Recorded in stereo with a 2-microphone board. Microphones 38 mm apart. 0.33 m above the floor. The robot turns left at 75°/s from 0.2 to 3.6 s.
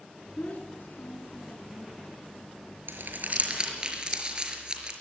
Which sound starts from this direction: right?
Crumpling, at 2.9 s.